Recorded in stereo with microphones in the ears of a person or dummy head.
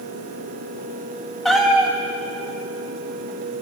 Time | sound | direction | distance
1.4 | a cat meowing | centre (ahead or behind) | 1.2 m